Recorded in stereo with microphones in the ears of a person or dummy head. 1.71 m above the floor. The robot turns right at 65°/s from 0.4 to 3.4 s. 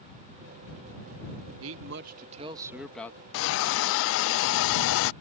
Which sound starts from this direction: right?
A man speaking, at 1.6 s.